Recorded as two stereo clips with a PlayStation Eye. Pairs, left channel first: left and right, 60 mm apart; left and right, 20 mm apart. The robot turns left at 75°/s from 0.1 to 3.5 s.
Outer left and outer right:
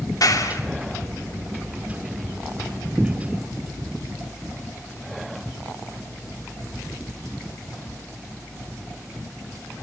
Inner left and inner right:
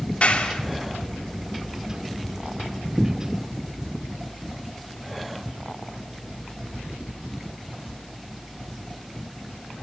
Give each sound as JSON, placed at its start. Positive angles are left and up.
{"t": 0.2, "sound": "a clap", "azimuth_deg": 95, "distance_m": 2.5}